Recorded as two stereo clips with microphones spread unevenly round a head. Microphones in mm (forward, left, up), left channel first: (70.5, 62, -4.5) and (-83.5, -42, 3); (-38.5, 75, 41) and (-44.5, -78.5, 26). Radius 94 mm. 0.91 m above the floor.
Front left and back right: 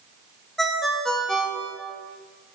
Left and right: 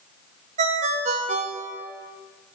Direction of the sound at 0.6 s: 55° right.